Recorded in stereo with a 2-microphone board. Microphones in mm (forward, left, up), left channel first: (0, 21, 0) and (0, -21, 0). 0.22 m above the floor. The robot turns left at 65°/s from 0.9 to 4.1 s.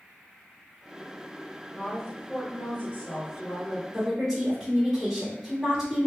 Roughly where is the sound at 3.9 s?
Centre.